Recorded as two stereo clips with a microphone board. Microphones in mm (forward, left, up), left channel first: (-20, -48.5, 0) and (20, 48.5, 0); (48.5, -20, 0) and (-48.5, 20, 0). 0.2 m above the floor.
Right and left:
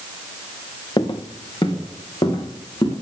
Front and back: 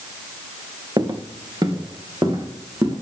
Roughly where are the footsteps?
Behind right.